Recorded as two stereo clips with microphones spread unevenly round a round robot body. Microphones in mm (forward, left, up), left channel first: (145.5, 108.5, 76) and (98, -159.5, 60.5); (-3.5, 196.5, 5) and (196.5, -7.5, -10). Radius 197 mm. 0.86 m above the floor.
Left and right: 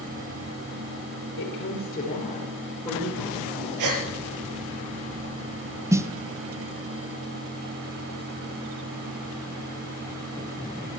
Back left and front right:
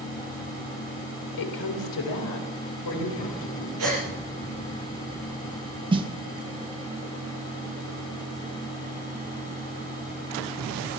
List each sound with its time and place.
1.4 s a woman speaking: 135° left, 3.5 m; by 3.7 s 170° left, 4.5 m
3.8 s a gasp: 100° right, 3.5 m
5.9 s a snare drum: 50° right, 0.8 m